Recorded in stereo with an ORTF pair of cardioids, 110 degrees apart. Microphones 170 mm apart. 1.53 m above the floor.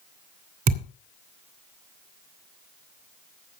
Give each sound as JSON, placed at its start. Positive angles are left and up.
{"t": 0.7, "sound": "a thud", "azimuth_deg": -55, "distance_m": 3.0}